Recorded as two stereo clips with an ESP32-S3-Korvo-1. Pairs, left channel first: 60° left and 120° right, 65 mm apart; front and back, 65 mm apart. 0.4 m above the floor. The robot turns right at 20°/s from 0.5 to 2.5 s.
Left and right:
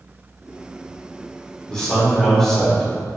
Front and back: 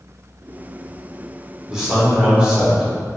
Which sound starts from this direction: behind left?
A man speaking, at 1.7 s.